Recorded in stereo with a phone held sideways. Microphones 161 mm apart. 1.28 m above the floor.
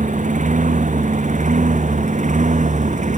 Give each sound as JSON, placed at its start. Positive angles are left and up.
{"t": 0.0, "sound": "a lawn mower", "side_deg": -50}